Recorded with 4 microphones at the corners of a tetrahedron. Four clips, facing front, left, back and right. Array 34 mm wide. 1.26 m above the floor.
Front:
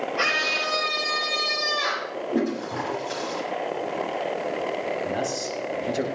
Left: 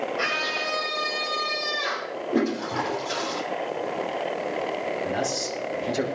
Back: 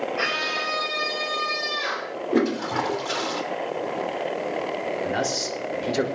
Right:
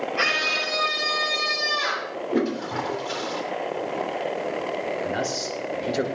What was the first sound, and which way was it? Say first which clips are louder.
A scream: right 5 dB, front 4 dB; 95° right.